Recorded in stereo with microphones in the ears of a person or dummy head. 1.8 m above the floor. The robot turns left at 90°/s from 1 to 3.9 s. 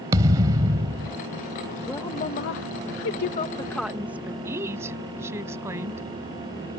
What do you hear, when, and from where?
0.1 s a thud: 20° right (ahead or behind); by 1.2 s 15° right (ahead or behind)
1.9 s a woman speaking: 175° left; by 4.3 s 5° right
4.5 s a woman speaking: 15° right (ahead or behind)